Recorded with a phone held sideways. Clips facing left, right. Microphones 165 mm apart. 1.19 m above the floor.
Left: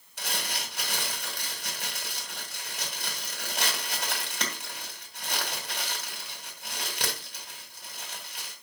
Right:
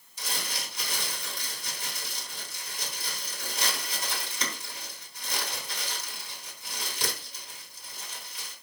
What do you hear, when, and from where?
0.2 s crumpling: 70° left (ahead or behind), 2.5 m